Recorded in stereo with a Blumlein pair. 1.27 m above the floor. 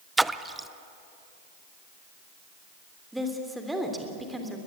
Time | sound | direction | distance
0.2 | a splash | 5° right | 0.6 m
3.1 | a woman speaking | 5° right | 3 m